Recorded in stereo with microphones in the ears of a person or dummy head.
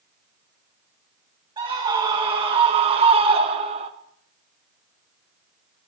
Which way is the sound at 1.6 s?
25° right (ahead or behind).